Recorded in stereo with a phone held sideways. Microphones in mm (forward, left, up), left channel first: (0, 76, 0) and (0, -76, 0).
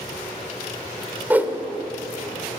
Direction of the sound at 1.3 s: 10° right (ahead or behind).